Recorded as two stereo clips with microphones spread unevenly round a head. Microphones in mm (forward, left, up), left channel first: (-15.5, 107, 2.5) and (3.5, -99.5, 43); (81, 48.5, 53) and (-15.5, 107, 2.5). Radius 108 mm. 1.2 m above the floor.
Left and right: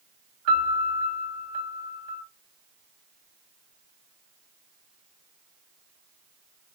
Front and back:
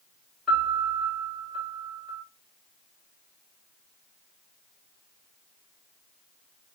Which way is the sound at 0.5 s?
130° right.